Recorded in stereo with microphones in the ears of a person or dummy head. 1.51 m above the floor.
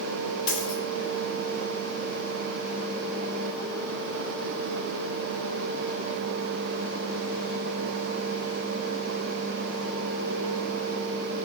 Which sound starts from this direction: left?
A dropped coin, at 0.5 s.